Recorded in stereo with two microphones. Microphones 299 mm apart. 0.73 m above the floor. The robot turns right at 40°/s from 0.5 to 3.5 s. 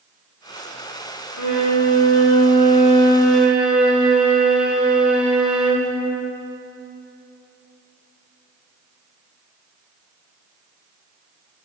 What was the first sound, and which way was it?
A violin, 100° left.